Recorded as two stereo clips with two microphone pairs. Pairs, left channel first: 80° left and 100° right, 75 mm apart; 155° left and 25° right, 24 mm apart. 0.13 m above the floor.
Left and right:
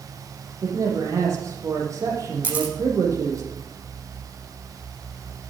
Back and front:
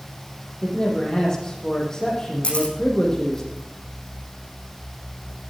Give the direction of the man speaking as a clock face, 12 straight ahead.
5 o'clock.